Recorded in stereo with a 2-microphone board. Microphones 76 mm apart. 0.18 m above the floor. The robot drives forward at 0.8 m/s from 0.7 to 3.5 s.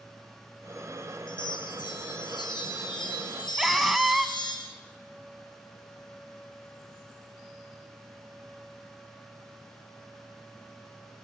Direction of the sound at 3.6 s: 5° right (ahead or behind).